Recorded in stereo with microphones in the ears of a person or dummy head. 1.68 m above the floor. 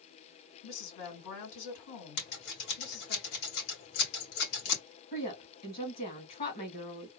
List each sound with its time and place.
0.6 s a woman speaking: 75° left (ahead or behind), 2.5 m
2.2 s scissors: 70° left (ahead or behind), 2 m
5.1 s a woman speaking: 45° left (ahead or behind), 2 m